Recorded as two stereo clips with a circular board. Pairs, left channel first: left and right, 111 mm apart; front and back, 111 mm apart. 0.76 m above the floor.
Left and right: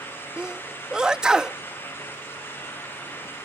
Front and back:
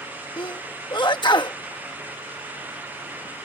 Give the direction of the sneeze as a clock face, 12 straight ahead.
12 o'clock.